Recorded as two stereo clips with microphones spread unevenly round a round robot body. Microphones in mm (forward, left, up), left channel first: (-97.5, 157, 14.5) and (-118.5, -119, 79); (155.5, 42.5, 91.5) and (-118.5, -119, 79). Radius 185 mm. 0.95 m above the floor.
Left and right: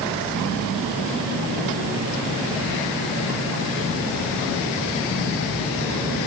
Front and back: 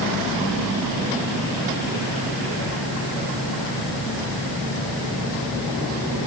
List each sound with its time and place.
Only background noise.